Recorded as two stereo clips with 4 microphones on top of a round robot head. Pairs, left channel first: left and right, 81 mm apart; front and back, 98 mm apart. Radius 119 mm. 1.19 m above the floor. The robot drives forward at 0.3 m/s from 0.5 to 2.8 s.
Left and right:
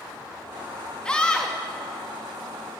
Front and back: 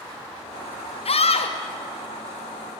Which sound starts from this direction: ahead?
A scream, at 1.1 s.